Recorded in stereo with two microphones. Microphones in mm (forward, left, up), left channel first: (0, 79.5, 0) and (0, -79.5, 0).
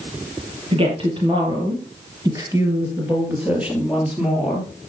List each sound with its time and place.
0.7 s a woman speaking: 35° right (ahead or behind), 4 m; by 4.7 s centre (ahead or behind), 4 m